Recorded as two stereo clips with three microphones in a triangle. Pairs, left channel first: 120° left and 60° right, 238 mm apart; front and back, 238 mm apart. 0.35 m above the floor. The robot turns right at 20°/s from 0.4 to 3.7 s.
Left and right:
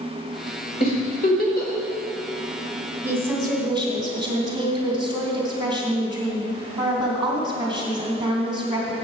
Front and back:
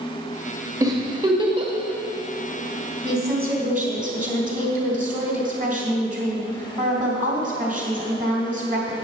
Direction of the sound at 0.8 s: 115° left.